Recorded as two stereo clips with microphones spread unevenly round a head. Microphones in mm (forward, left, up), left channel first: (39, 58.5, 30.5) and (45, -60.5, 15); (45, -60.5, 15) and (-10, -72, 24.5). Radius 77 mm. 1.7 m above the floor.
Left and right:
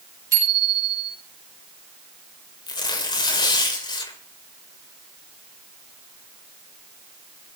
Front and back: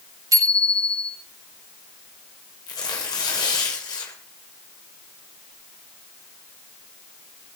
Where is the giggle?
I don't hear a giggle.